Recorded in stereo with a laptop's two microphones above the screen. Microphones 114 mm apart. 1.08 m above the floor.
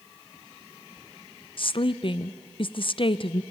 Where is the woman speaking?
50° left (ahead or behind), 0.5 m.